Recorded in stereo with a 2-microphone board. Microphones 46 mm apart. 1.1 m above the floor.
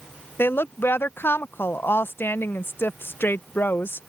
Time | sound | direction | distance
0.4 | a woman speaking | 55° left (ahead or behind) | ?